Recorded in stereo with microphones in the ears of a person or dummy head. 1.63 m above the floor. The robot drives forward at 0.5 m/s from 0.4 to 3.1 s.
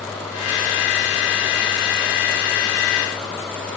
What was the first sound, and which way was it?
Only background noise.